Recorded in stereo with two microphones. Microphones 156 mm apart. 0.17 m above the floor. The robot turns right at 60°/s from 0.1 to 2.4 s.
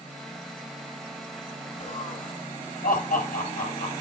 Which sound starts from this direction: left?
Laughter, at 1.8 s.